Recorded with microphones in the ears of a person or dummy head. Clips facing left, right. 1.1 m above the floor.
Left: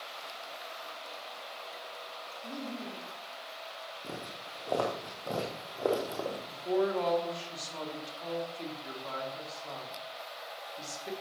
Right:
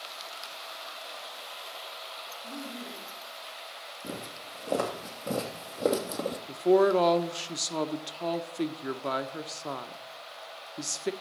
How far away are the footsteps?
About 3.5 m.